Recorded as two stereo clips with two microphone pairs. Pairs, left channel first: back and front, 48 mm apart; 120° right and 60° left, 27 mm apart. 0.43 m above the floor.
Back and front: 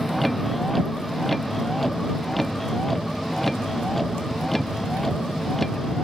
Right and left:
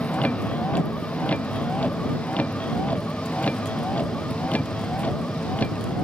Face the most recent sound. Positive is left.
turn(degrees=-100)